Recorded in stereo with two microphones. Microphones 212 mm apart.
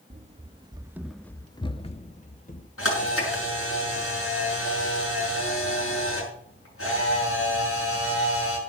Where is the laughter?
No laughter in this recording.